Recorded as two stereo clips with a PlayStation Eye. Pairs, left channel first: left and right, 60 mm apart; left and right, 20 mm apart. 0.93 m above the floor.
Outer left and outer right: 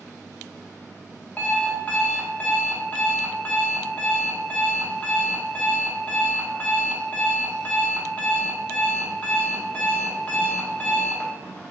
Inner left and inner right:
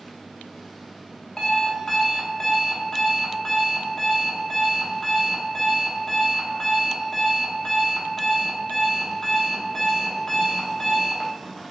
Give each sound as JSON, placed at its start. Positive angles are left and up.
{"t": 1.4, "sound": "an alarm clock", "side_deg": 25, "distance_m": 0.8}